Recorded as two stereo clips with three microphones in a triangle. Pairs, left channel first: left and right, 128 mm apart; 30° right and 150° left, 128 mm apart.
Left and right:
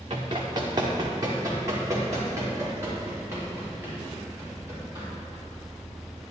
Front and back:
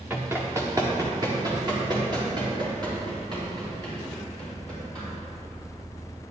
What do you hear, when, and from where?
0.1 s running footsteps: 135° right, 1.9 m; by 5.0 s 160° right, 9 m